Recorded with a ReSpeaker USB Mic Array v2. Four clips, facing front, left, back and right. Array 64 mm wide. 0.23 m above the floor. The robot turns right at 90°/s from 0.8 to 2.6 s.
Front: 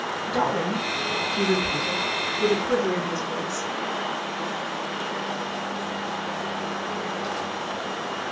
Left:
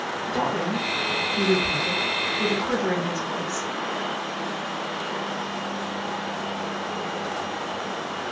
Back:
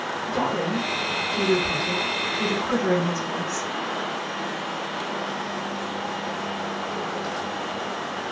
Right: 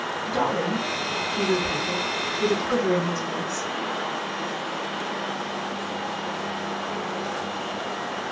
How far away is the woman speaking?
About 1.8 m.